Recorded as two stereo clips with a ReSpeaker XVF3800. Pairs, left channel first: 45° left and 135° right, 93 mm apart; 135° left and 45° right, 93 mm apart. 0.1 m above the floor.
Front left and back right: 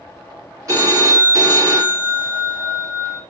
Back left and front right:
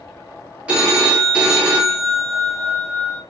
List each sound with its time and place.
0.7 s a phone ringing: 115° right, 1.2 m